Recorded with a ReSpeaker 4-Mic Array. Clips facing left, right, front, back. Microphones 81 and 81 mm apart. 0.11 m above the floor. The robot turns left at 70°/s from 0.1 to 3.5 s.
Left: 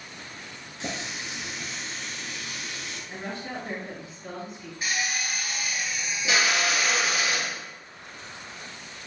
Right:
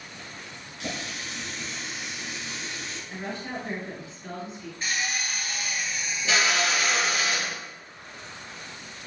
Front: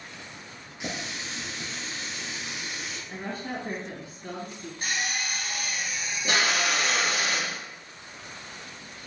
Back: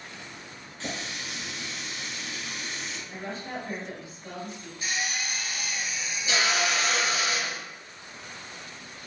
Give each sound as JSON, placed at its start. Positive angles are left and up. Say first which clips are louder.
{"t": 0.8, "sound": "a running tap", "louder": "even, front 1 dB", "azimuth_deg": 65, "distance_m": 1.0}
{"t": 3.1, "sound": "a woman speaking", "louder": "right 1 dB, front 2 dB", "azimuth_deg": 5, "distance_m": 2.5}
{"t": 4.8, "sound": "a drill", "louder": "left 1 dB, front 1 dB", "azimuth_deg": 10, "distance_m": 1.5}